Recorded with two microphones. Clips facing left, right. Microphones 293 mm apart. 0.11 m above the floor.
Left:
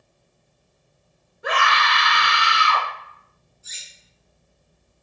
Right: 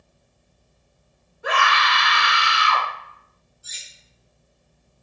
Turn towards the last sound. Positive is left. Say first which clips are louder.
# right 1 dB
turn(degrees=20)  # may be behind; listen again after turning